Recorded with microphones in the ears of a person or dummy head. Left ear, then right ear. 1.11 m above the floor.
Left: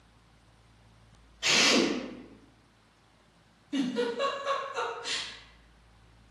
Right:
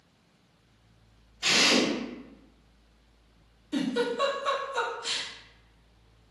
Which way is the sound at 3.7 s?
25° right (ahead or behind).